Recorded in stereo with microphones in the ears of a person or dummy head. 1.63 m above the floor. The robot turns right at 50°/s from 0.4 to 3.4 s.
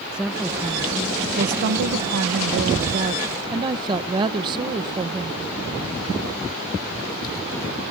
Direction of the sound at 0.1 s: Straight behind.